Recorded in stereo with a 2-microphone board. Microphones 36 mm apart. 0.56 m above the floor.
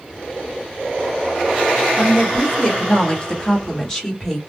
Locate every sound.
2.0 s a woman speaking: 20° left (ahead or behind), 1.3 m; by 4.4 s 15° left (ahead or behind), 1.2 m